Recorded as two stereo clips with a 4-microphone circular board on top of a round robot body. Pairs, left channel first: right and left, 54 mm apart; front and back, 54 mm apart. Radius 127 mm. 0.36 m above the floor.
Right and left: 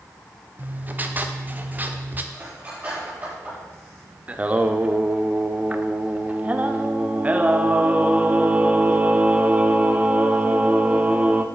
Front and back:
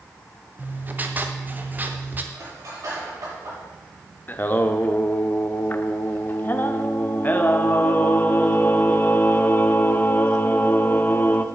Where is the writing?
135° left, 1.1 m.